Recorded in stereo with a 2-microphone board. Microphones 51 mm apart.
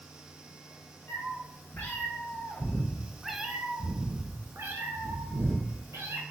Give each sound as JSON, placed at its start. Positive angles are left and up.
{"t": 1.1, "sound": "a cat meowing", "side_deg": 55, "distance_m": 1.8}